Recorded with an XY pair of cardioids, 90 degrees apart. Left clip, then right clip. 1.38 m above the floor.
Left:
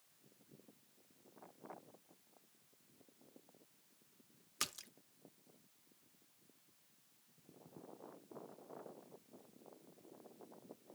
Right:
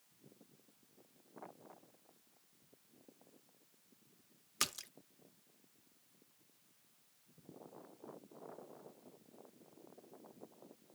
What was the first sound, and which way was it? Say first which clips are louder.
A splash: right 4 dB; 30° right.